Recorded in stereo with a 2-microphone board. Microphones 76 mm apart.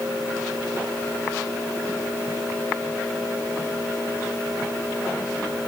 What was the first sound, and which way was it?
Only background noise.